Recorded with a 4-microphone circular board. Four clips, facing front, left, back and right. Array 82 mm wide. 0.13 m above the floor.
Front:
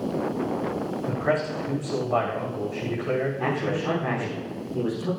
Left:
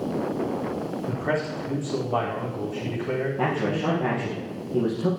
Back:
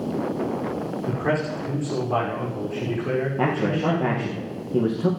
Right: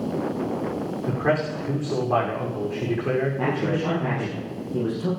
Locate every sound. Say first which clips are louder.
1.1 s a man speaking: right 5 dB, back 1 dB; 110° right, 8 m
3.4 s a man speaking: right 1 dB, back 4 dB; 170° left, 4.5 m